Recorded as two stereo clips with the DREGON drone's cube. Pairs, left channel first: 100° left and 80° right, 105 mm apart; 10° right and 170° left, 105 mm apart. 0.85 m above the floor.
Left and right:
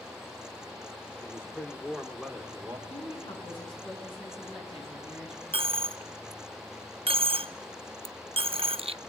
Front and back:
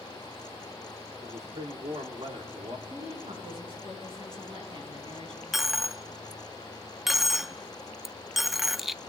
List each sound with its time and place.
1.2 s a man speaking: 170° left, 2.5 m; by 2.8 s 155° right, 2.5 m
2.9 s a woman speaking: 135° left, 9 m
5.5 s a dropped coin: 105° right, 0.5 m